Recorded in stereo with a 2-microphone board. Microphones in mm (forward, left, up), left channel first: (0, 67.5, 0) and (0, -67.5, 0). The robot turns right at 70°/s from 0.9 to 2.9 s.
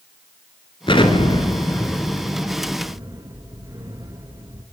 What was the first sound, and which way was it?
An explosion, 40° left (ahead or behind).